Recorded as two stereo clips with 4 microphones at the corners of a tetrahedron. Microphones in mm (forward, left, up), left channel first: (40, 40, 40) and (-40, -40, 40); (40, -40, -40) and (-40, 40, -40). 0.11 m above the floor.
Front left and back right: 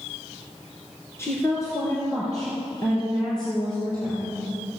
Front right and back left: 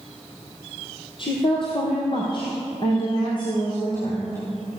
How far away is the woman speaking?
About 2.5 m.